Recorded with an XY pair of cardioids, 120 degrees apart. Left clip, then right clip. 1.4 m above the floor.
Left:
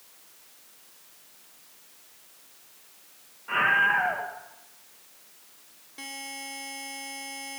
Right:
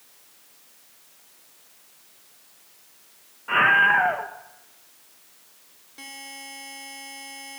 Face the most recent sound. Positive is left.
turn(degrees=5)